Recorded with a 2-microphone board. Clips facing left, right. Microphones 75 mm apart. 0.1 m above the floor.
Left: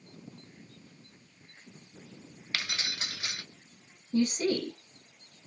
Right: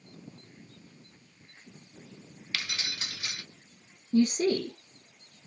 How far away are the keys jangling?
About 0.8 m.